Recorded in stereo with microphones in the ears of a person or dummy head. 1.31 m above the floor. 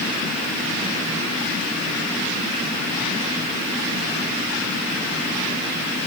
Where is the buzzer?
I don't hear a buzzer.